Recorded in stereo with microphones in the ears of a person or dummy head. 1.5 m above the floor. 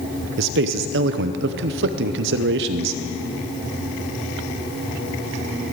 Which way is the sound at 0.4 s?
70° right (ahead or behind).